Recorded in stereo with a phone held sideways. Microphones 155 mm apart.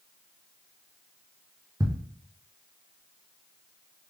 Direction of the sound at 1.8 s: 25° right (ahead or behind).